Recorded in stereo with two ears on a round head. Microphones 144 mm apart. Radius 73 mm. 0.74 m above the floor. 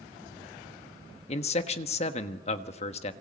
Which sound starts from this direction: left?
A man speaking, at 1.3 s.